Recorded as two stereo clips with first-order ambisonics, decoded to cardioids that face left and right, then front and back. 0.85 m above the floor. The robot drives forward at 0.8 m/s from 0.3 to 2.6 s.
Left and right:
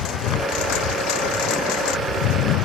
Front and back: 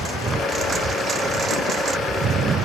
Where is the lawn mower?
110° left; by 2.6 s 120° left.